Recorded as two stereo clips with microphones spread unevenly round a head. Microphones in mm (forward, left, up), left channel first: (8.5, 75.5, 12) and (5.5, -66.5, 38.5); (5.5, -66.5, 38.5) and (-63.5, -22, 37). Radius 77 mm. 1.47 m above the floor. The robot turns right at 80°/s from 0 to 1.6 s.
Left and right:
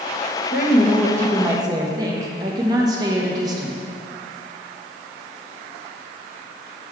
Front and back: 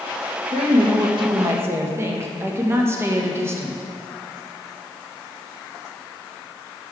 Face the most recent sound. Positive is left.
turn(degrees=-155)